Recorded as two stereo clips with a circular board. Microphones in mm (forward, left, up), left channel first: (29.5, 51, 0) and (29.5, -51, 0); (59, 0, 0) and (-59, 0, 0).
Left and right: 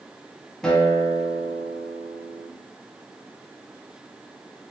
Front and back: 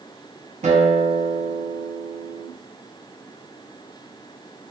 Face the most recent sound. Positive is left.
turn(degrees=175)